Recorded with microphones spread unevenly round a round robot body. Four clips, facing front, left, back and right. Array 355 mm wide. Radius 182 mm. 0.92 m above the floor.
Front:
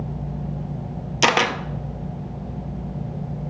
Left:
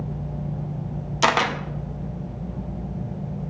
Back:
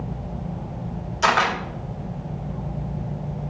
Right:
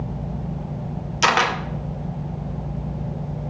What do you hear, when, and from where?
1.2 s a camera shutter: 15° left, 0.8 m